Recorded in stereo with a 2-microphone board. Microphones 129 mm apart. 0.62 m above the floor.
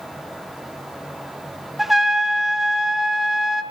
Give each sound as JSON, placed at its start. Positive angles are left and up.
{"t": 1.8, "sound": "a trumpet", "side_deg": 0, "distance_m": 0.7}